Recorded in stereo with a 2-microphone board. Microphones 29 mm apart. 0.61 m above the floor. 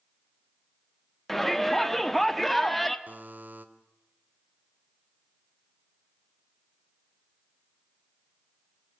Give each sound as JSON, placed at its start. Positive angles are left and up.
{"t": 1.3, "sound": "a shout", "side_deg": 10, "distance_m": 1.1}
{"t": 3.1, "sound": "a buzzer", "side_deg": -70, "distance_m": 1.7}